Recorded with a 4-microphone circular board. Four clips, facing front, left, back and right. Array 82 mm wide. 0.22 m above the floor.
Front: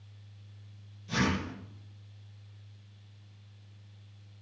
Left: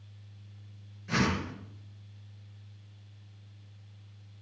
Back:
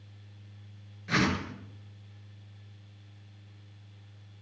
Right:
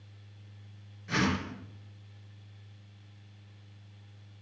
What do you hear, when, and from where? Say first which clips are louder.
1.1 s a whoosh: even, back 2 dB; straight behind, 3.5 m